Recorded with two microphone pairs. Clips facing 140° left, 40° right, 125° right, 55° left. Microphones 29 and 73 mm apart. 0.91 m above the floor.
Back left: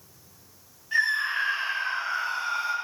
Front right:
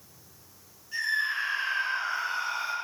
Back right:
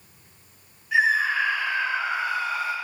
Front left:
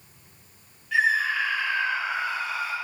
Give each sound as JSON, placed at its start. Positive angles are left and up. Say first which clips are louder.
{"t": 0.9, "sound": "a scream", "louder": "back left 4 dB, back right 2 dB", "azimuth_deg": 160, "distance_m": 0.9}